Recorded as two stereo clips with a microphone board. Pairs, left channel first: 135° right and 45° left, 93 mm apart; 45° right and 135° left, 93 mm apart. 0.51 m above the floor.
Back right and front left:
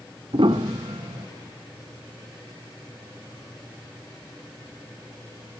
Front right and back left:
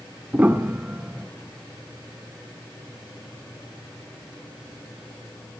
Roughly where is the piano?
Ahead left.